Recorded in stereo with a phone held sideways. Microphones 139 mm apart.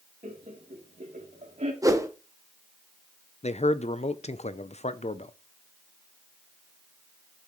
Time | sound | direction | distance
0.2 | laughter | 70° right (ahead or behind) | 3.5 m
1.8 | a whoosh | 25° right (ahead or behind) | 1.0 m
3.4 | a man speaking | 50° left (ahead or behind) | 0.6 m